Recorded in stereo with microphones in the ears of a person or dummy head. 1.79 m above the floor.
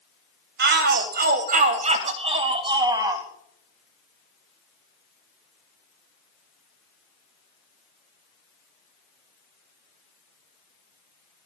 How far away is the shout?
About 2 m.